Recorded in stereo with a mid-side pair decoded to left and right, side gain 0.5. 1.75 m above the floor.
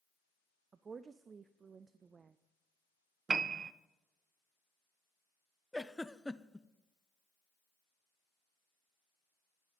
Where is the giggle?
5° left, 0.5 m.